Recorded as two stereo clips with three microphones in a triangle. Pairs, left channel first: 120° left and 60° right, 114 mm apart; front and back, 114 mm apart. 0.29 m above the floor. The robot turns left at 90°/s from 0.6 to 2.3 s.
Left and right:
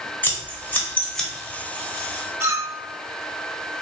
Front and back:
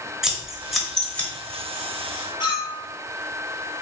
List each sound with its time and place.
0.2 s scissors: 100° left, 1.0 m; by 1.3 s 40° left, 1.0 m
2.4 s a clink: 5° right, 0.7 m